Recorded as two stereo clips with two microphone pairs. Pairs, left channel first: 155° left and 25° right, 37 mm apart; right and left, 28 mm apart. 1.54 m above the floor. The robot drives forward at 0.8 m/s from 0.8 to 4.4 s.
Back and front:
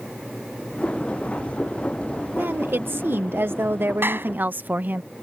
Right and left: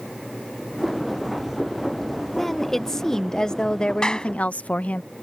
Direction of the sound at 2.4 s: 20° right.